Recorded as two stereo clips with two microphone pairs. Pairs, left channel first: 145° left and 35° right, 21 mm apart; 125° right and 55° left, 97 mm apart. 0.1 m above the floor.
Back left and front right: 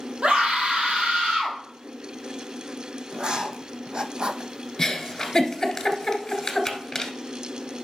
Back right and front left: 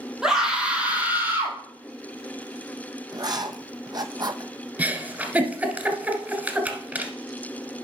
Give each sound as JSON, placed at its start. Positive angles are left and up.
{"t": 0.2, "sound": "a scream", "azimuth_deg": -25, "distance_m": 4.0}
{"t": 3.1, "sound": "writing", "azimuth_deg": 10, "distance_m": 0.7}
{"t": 4.8, "sound": "a giggle", "azimuth_deg": 100, "distance_m": 1.5}